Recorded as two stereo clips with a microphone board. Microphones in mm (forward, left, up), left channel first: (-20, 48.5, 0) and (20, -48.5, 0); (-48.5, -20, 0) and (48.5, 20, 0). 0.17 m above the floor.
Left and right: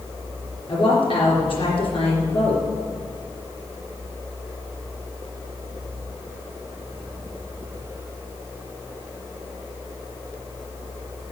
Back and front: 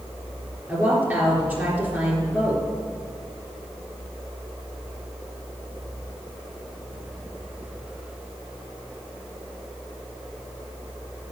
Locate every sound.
0.7 s a woman speaking: 90° left, 3.5 m